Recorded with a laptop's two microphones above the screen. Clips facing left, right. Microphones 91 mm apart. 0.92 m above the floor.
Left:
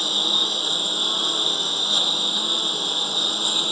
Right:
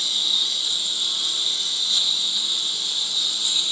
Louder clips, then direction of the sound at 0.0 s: Left 8 dB; 50° left (ahead or behind).